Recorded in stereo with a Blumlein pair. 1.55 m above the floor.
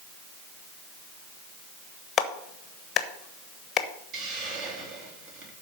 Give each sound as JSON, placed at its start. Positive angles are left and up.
{"t": 2.2, "sound": "a clap", "azimuth_deg": 25, "distance_m": 1.2}
{"t": 4.1, "sound": "a hiss", "azimuth_deg": -35, "distance_m": 3.5}